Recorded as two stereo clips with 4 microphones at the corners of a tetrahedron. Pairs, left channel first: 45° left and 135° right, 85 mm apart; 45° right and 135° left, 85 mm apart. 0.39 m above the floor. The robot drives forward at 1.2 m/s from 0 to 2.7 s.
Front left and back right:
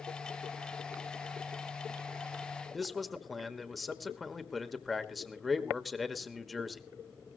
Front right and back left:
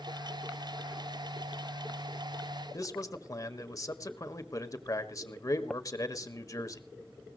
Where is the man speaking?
45° right, 1.3 m.